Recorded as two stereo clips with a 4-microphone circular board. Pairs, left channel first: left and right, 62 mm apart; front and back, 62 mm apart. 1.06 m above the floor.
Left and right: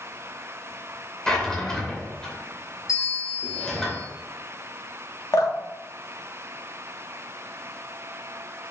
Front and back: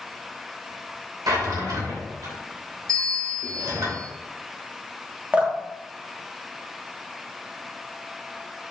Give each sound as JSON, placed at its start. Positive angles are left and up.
{"t": 1.3, "sound": "a drawer", "azimuth_deg": 170, "distance_m": 2.5}
{"t": 2.9, "sound": "a bell", "azimuth_deg": 85, "distance_m": 4.0}
{"t": 5.3, "sound": "dripping", "azimuth_deg": 115, "distance_m": 1.6}